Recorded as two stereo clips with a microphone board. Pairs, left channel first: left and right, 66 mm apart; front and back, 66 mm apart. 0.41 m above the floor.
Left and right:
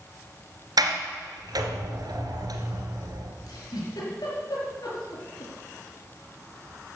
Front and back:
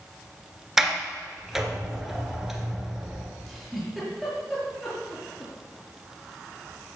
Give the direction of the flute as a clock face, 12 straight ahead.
No flute in this recording.